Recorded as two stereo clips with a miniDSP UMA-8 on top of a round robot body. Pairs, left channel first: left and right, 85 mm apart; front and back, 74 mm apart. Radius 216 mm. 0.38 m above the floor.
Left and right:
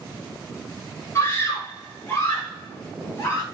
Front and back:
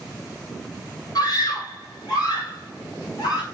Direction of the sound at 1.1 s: 30° left.